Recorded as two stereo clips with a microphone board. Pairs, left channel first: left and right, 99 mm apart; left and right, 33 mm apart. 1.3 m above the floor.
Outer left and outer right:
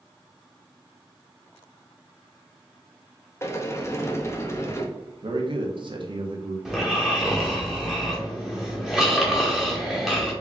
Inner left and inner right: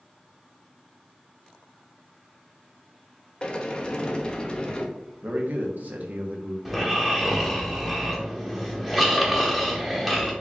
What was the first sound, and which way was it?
A sliding door, 30° left (ahead or behind).